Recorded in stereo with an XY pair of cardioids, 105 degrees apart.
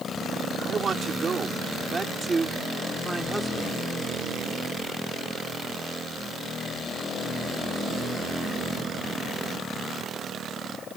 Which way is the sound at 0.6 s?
40° right.